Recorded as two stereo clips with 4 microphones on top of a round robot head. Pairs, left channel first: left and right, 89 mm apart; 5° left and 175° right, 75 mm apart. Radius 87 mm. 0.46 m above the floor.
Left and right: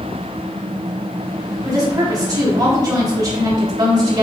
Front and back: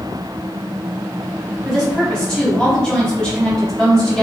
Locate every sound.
1.6 s a woman speaking: 70° right, 1.0 m